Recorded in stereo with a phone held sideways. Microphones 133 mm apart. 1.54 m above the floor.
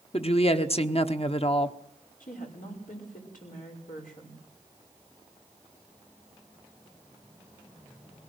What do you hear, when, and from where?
0.1 s a woman speaking: 45° left (ahead or behind), 1.0 m
2.2 s a woman speaking: 80° left, 5.5 m